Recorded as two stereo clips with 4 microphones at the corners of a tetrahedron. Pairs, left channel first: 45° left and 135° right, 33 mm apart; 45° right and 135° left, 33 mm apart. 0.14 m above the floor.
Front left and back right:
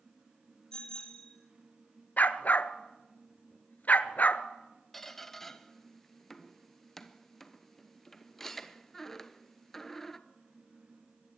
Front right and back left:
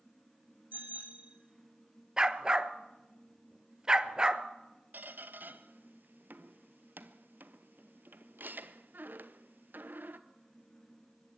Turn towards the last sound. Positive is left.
turn(degrees=125)